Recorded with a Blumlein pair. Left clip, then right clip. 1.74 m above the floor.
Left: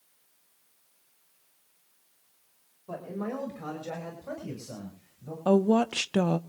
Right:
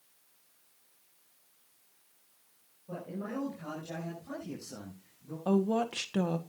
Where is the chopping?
I don't hear chopping.